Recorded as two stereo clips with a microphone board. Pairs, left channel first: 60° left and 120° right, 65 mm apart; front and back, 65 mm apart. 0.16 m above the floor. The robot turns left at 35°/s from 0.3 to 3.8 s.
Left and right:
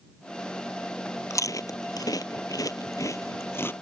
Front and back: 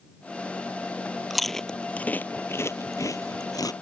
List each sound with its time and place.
1.3 s chewing: 90° left; by 3.7 s 5° left